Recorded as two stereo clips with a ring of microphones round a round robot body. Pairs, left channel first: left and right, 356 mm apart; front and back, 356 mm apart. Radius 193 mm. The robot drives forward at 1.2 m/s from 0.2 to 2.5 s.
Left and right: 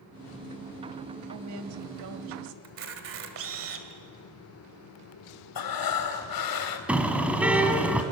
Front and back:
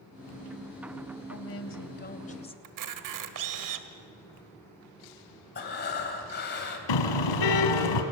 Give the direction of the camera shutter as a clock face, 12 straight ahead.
5 o'clock.